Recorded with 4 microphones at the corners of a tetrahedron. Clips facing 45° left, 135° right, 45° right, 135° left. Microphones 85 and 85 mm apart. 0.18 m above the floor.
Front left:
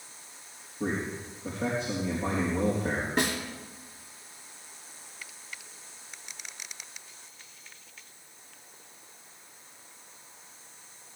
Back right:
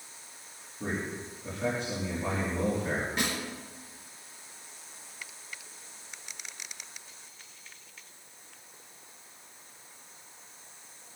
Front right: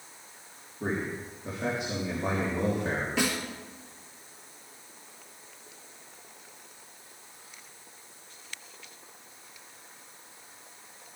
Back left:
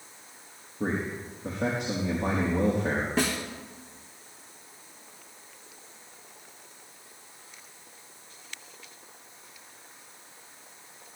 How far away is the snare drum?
About 3 m.